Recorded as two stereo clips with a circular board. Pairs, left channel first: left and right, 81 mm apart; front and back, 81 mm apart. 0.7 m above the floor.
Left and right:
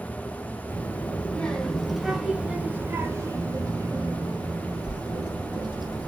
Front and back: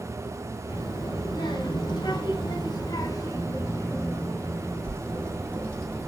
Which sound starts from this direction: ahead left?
A child speaking, at 0.7 s.